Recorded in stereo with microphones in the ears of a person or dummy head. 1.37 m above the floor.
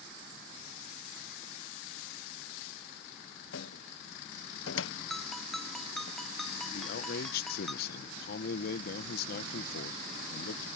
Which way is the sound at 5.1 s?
Centre (ahead or behind).